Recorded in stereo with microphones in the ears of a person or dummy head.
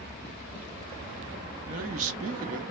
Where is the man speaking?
40° right (ahead or behind), 0.8 m.